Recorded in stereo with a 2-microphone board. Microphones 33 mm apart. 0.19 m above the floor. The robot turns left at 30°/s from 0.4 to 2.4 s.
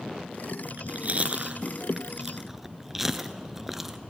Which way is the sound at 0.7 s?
60° right (ahead or behind).